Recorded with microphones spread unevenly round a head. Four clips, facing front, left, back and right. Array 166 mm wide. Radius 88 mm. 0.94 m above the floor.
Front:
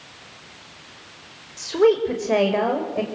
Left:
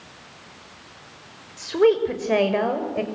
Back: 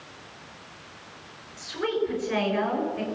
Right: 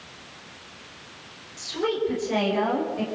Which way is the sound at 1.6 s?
45° left.